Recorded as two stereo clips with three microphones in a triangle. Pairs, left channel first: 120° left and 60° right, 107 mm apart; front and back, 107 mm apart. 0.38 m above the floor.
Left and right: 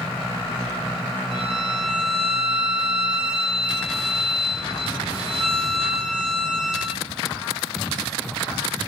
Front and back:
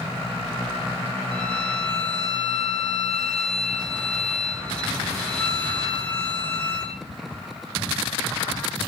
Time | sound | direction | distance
1.3 | a violin | 85° right | 1.1 m